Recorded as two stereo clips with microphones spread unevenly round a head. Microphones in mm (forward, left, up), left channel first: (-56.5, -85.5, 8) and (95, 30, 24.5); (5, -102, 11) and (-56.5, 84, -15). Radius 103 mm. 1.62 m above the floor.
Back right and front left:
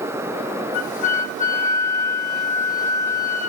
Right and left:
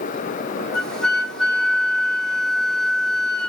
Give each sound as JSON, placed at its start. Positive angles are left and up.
{"t": 0.7, "sound": "a flute", "azimuth_deg": -140, "distance_m": 0.9}